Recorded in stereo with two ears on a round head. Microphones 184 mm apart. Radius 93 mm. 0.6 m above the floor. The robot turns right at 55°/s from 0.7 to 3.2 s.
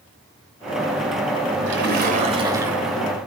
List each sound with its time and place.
1.7 s a splash: 65° right, 3.5 m; by 3.1 s 10° left, 3.5 m